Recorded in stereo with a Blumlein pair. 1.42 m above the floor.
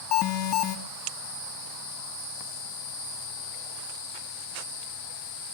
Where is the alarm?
35° left, 2 m.